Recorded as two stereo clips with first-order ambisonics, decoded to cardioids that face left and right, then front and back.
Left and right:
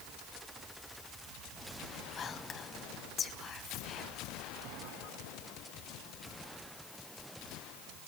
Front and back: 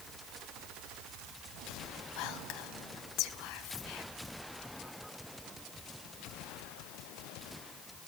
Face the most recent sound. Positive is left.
turn(degrees=25)